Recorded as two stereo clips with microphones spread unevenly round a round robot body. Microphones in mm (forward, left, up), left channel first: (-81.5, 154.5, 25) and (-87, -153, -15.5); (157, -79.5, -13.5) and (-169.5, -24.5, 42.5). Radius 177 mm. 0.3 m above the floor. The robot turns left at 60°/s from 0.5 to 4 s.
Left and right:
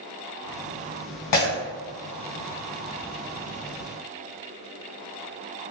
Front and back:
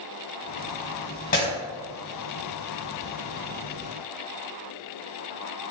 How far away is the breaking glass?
About 1.4 m.